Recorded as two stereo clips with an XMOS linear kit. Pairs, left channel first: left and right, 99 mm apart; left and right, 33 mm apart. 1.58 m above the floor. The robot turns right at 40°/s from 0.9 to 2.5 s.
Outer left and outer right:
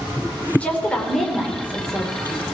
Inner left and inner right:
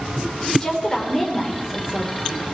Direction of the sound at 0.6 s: 165° left.